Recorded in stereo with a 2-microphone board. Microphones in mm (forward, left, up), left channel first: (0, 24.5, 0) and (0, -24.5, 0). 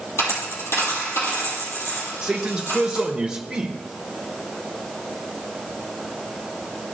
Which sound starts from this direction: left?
A dropped coin, at 0.2 s.